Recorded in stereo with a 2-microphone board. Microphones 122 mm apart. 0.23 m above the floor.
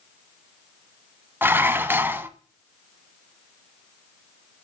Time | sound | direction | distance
1.4 | dishes clattering | 20° right (ahead or behind) | 1.1 m